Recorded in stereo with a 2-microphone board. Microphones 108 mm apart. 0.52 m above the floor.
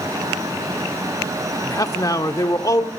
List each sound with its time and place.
1.6 s a man speaking: 35° left (ahead or behind), 1.1 m